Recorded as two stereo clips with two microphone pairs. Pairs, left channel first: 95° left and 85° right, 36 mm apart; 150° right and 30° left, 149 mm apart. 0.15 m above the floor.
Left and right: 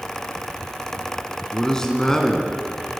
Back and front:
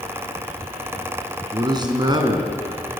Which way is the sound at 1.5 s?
40° left.